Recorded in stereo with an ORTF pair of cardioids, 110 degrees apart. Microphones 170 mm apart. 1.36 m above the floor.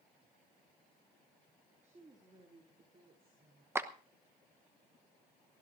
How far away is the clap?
About 1.0 m.